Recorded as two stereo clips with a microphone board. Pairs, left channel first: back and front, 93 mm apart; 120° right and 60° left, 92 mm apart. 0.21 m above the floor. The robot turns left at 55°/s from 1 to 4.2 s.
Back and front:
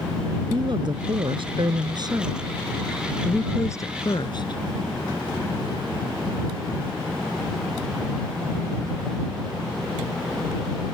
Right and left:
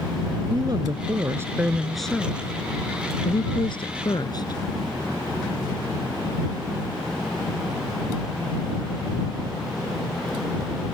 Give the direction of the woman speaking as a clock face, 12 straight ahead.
11 o'clock.